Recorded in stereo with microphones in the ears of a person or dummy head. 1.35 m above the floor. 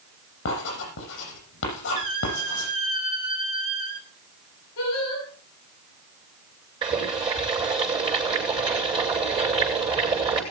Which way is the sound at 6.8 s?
25° right (ahead or behind).